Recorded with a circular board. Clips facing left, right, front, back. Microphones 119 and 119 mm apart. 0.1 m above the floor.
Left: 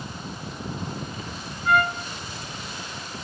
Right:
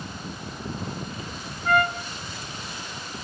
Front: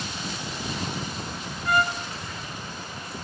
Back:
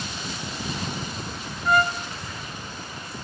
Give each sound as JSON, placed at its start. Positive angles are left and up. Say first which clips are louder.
{"t": 1.6, "sound": "a trumpet", "louder": "even, back 3 dB", "azimuth_deg": -140, "distance_m": 1.0}